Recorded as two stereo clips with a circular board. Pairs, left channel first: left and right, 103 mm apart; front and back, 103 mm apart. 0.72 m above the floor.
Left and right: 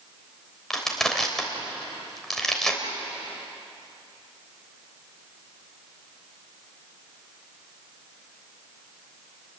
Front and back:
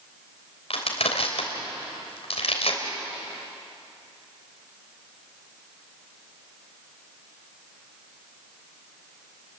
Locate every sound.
0.7 s crushing: 5° left, 3 m